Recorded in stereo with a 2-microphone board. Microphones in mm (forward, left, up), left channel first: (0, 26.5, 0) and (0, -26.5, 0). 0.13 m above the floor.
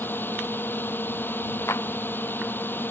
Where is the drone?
40° left (ahead or behind).